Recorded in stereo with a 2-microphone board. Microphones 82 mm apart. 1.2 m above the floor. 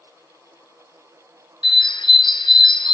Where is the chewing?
I don't hear chewing.